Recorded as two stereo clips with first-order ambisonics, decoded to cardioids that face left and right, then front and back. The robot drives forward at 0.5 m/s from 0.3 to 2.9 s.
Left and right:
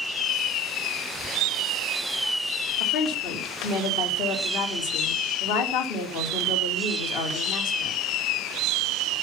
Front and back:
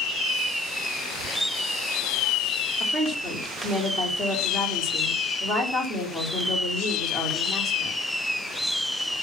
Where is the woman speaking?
95° left, 3 m; by 8.0 s 100° left, 3 m.